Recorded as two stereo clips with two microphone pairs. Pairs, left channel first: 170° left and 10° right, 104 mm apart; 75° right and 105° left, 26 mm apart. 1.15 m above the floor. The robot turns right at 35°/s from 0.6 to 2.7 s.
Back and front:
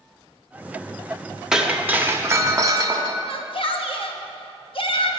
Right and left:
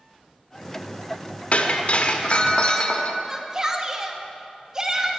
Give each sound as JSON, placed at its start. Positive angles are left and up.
{"t": 1.5, "sound": "breaking glass", "azimuth_deg": -90, "distance_m": 0.8}
{"t": 3.3, "sound": "a shout", "azimuth_deg": 170, "distance_m": 1.2}